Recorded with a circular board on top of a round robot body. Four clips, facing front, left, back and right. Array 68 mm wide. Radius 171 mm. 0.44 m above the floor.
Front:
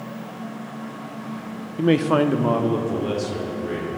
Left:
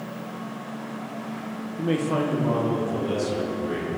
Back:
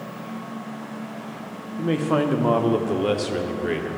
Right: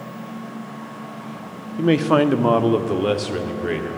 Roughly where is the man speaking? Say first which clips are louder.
Right 8 dB, front 4 dB; ahead right.